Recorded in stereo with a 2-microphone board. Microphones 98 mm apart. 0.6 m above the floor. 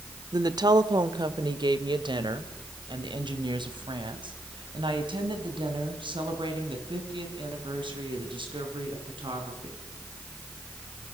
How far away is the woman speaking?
About 1.3 m.